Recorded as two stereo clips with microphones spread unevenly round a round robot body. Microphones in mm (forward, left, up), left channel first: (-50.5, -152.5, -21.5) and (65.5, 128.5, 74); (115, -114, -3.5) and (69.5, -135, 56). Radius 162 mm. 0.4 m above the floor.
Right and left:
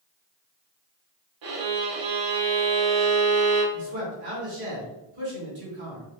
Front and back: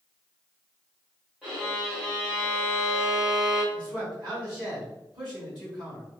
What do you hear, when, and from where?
1.4 s a violin: 65° left, 1.1 m
3.7 s a man speaking: 130° left, 1.8 m